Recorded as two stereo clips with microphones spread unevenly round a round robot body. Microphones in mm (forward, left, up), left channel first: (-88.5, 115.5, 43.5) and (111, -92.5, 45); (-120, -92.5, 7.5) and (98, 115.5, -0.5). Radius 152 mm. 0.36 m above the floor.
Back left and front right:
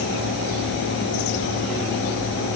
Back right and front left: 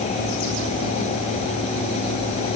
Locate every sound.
Only background noise.